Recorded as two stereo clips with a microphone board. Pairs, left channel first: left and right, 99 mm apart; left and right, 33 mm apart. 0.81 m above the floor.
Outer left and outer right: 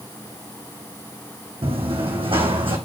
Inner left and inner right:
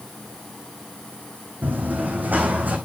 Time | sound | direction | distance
1.6 | running footsteps | 70° right (ahead or behind) | 3 m